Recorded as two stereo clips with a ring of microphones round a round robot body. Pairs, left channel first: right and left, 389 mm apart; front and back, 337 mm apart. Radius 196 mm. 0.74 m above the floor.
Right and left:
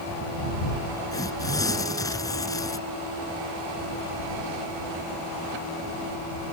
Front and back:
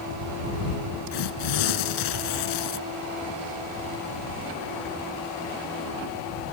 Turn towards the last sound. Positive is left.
turn(degrees=-10)